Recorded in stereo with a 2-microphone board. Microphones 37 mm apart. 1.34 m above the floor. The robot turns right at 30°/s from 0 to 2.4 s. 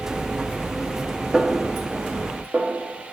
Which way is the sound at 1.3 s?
25° right (ahead or behind).